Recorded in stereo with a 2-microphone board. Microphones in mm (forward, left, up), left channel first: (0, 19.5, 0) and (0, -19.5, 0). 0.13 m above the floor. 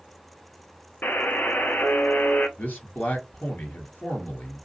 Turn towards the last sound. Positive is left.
turn(degrees=50)  # may be behind; listen again after turning